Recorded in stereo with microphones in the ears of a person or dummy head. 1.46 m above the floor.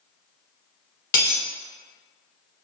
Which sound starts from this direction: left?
A dropped coin, at 1.1 s.